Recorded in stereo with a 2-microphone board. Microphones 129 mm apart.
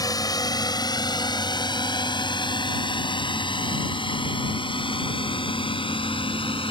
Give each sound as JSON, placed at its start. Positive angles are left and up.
{"t": 0.0, "sound": "a drone", "side_deg": 30}